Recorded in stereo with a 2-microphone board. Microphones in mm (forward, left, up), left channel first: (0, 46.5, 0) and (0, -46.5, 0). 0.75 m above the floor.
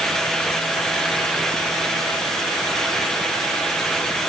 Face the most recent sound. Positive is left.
No sound to turn to.